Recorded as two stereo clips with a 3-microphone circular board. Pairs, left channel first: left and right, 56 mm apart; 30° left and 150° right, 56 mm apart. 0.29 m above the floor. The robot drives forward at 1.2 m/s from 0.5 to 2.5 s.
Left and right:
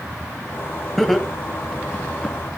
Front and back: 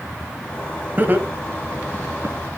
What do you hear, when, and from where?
1.0 s laughter: 175° left, 1.6 m; by 2.4 s straight behind, 3 m